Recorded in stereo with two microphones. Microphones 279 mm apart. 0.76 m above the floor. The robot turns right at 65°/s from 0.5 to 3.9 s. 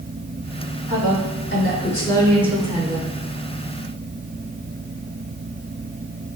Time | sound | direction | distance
0.9 | a woman speaking | 85° left | 2.5 m